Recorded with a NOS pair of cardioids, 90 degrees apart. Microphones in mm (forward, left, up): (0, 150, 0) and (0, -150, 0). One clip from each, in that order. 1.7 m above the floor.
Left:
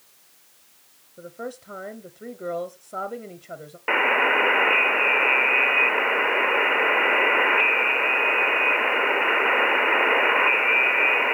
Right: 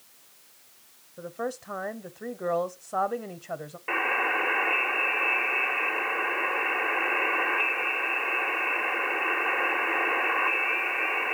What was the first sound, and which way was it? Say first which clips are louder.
A woman speaking: right 2 dB; 5° right.